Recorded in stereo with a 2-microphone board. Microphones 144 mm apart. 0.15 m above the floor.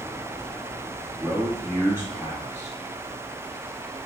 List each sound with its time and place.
1.2 s a man speaking: 15° right (ahead or behind), 1.4 m